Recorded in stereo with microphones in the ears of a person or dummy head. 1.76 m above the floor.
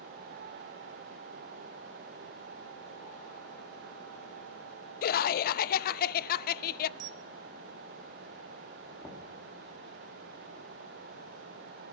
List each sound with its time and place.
5.0 s laughter: 55° left (ahead or behind), 0.6 m
7.0 s a camera shutter: 50° right (ahead or behind), 0.5 m
9.0 s knocking: 20° left (ahead or behind), 2.5 m